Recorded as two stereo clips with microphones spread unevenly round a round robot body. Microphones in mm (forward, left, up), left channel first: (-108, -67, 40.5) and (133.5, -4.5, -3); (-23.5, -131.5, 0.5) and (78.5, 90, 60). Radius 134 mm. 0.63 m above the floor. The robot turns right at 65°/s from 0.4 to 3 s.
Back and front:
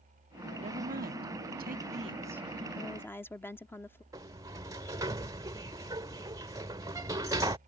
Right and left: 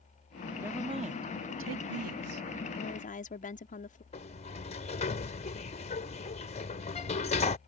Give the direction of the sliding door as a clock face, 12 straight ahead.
2 o'clock.